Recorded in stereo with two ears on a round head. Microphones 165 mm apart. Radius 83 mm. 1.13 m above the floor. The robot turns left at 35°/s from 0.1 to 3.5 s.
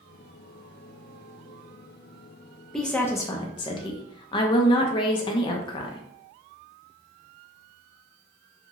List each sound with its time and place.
2.7 s a woman speaking: centre (ahead or behind), 0.5 m; by 6.0 s 25° left (ahead or behind), 0.5 m